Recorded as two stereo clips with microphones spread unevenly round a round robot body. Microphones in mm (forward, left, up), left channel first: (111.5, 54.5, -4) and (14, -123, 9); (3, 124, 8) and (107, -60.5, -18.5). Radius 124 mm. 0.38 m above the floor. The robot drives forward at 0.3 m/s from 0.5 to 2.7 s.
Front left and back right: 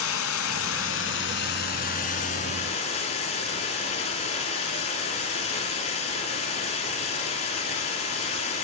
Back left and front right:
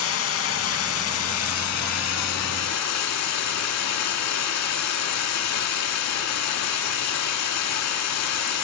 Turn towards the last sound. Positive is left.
turn(degrees=130)